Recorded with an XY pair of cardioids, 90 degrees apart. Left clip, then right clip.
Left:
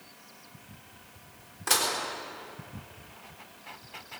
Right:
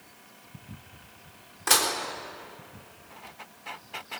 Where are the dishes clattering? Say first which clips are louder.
Right 3 dB; 30° right, 3.5 m.